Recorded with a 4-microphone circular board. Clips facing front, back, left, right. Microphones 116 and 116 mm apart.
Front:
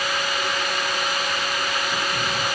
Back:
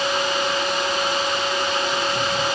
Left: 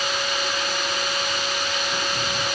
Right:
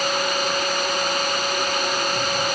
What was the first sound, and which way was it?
Only background noise.